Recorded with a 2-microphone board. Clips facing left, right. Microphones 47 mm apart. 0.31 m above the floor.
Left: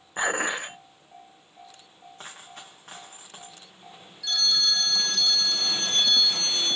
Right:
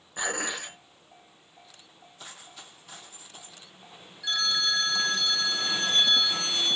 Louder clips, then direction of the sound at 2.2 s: Left 3 dB; 55° left (ahead or behind).